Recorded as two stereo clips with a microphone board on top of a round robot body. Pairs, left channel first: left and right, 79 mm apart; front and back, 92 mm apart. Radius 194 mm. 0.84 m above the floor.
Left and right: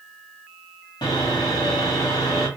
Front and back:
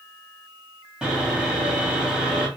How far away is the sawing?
About 1.8 m.